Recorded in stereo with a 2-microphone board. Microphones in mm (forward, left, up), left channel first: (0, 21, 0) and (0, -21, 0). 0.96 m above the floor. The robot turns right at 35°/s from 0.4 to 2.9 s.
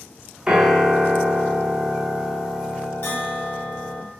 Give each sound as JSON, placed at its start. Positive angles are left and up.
{"t": 0.5, "sound": "a piano", "azimuth_deg": -35, "distance_m": 0.6}
{"t": 3.0, "sound": "a bell", "side_deg": 60, "distance_m": 1.0}